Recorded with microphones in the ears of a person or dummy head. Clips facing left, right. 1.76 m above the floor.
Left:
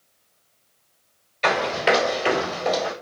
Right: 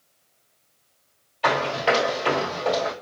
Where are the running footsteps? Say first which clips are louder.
Left 1 dB; 25° left (ahead or behind), 1.9 m; by 2.9 s 5° left (ahead or behind), 1.9 m.